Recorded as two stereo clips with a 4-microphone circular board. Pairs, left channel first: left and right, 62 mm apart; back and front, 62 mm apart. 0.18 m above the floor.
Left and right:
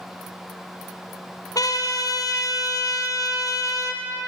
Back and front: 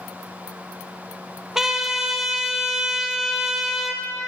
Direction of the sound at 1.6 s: 85° left.